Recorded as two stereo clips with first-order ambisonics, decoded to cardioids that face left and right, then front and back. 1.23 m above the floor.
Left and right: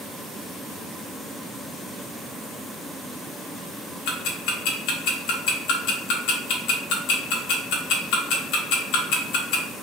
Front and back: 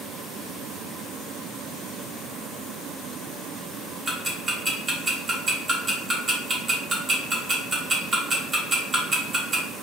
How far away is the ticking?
About 0.8 m.